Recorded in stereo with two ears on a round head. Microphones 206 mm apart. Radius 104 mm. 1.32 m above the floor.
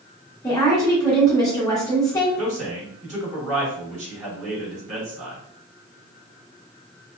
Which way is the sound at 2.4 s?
30° right (ahead or behind).